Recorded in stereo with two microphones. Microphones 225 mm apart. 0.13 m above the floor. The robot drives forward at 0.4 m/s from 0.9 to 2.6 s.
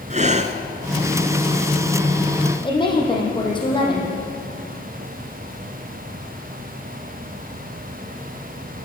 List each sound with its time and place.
0.1 s breathing: 35° right (ahead or behind), 1.1 m
2.6 s a woman speaking: 20° left (ahead or behind), 4.5 m